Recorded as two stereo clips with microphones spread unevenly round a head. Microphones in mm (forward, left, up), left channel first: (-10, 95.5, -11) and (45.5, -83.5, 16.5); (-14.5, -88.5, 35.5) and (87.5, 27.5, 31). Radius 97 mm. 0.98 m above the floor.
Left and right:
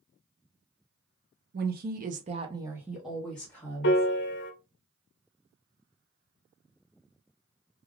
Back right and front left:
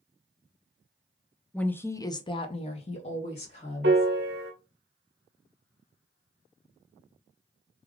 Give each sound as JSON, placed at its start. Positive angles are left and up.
{"t": 1.5, "sound": "a woman speaking", "azimuth_deg": -50, "distance_m": 0.8}
{"t": 3.8, "sound": "a piano", "azimuth_deg": 80, "distance_m": 0.6}